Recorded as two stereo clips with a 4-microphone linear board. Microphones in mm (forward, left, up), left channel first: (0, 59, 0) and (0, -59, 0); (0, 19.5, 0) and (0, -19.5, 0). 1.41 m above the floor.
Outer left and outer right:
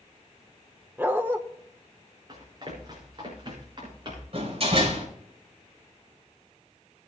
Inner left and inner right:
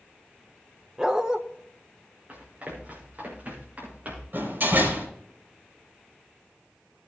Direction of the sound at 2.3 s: 40° right (ahead or behind).